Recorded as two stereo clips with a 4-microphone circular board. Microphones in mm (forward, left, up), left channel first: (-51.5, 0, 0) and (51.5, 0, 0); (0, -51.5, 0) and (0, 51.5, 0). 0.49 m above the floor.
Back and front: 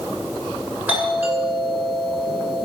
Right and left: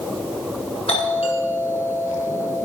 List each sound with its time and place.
0.9 s a doorbell: 75° right, 8 m